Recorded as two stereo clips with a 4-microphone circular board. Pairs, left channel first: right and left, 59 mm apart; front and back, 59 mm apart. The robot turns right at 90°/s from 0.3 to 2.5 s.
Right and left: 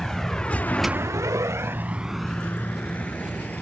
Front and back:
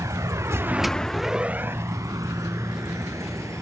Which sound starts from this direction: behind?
A vehicle, at 0.0 s.